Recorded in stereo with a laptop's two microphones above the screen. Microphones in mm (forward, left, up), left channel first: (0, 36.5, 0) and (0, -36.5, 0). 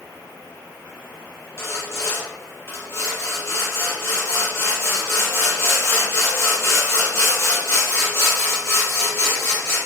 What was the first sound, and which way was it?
Sawing, 35° left (ahead or behind).